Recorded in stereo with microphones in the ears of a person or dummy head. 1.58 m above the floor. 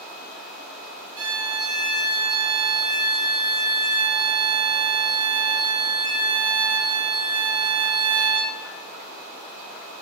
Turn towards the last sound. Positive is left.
turn(degrees=-20)  # may be behind; listen again after turning